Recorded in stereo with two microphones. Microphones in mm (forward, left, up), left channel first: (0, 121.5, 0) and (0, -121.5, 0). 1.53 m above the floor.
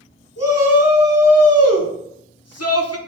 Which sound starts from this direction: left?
A shout, at 0.4 s.